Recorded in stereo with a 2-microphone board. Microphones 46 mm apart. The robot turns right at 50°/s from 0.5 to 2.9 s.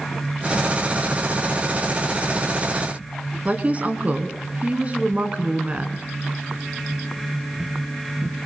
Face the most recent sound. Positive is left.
turn(degrees=-30)  # may be behind; listen again after turning